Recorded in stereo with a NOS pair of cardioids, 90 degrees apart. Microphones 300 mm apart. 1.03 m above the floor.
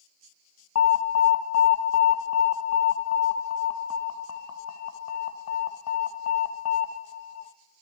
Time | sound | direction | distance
0.8 | an alarm | 50° left | 0.7 m